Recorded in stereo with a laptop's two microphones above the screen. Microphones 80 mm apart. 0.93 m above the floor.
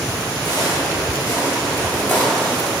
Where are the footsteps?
55° left (ahead or behind), 1.5 m; by 2.7 s 5° left (ahead or behind), 0.9 m.